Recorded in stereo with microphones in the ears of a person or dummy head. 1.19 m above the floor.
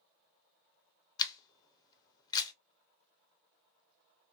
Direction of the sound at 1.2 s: 20° left (ahead or behind).